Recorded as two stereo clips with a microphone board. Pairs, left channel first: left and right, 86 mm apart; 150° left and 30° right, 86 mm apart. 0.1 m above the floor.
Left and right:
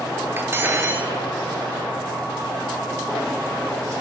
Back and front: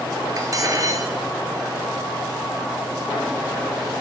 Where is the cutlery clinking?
40° right, 1.1 m.